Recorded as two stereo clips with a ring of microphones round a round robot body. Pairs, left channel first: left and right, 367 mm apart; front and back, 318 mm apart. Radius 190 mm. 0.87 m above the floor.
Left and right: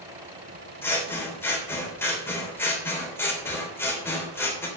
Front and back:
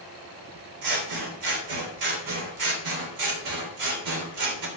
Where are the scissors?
175° left, 3 m.